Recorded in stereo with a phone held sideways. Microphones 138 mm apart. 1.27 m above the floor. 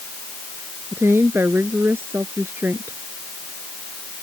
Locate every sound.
0.9 s a woman speaking: 15° right (ahead or behind)